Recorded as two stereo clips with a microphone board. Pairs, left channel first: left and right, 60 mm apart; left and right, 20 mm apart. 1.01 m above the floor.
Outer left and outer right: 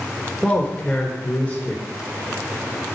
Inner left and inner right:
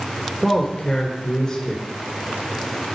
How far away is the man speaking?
About 3.5 m.